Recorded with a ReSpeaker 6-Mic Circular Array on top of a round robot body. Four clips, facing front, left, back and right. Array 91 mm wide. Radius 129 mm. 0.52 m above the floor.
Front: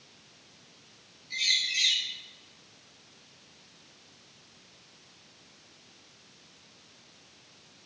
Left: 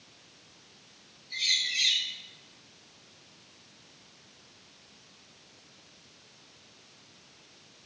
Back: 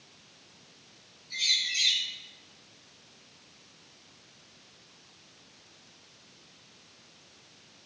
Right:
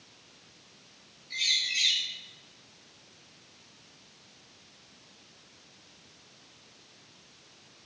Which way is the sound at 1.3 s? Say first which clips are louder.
Even, front 2 dB; 45° right.